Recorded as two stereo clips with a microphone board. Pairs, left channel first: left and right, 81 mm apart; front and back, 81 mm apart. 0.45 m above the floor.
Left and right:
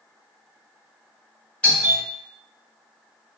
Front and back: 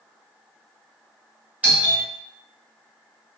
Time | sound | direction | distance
1.6 | a doorbell | 140° left | 1.8 m